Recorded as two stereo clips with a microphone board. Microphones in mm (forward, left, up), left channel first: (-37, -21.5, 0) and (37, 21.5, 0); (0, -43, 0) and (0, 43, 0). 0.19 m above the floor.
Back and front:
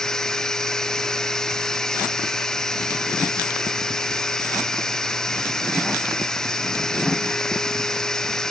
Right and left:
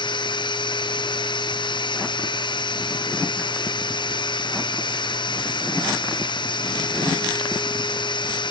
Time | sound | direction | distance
0.0 | running water | 65° right | ?